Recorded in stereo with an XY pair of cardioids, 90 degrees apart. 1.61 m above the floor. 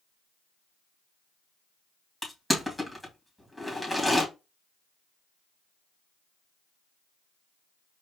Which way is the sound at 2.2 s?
10° left.